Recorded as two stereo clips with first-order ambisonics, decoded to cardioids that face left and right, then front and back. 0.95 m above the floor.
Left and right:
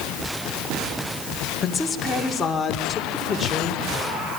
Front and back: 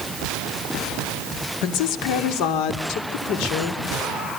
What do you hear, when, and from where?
1.6 s a woman speaking: 20° left, 2.5 m; by 3.8 s 15° left, 4 m